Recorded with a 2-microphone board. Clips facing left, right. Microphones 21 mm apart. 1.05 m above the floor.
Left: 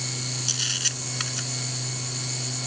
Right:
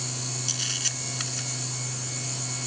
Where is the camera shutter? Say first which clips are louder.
Left 3 dB; 10° left (ahead or behind).